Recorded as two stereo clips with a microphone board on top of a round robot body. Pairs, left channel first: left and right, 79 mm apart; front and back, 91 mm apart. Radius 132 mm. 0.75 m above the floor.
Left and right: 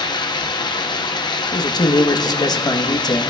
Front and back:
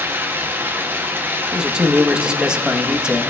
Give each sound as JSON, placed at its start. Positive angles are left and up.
{"t": 0.0, "sound": "running water", "azimuth_deg": 115, "distance_m": 0.8}
{"t": 1.5, "sound": "a man speaking", "azimuth_deg": 100, "distance_m": 1.1}